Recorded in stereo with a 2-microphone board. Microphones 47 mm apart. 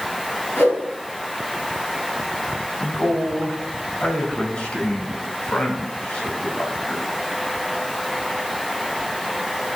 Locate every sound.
0.6 s a whoosh: 55° left (ahead or behind), 4.5 m
2.8 s a man speaking: 25° left (ahead or behind), 3 m